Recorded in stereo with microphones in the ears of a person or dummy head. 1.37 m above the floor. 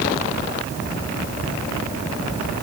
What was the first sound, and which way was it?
Only background noise.